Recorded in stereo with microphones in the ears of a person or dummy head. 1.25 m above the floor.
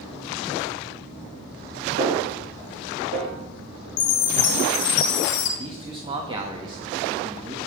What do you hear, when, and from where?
2.0 s a snare drum: 70° right (ahead or behind), 5 m
4.0 s a chime: 45° left (ahead or behind), 0.9 m
5.6 s a man speaking: 20° right (ahead or behind), 2.5 m